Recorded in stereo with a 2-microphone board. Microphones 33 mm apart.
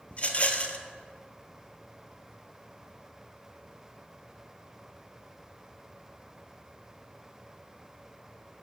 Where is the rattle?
40° left (ahead or behind), 0.5 m.